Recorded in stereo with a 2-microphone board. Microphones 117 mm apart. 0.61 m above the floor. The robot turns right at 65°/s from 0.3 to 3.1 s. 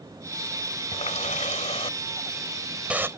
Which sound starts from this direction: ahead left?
A running tap, at 0.9 s.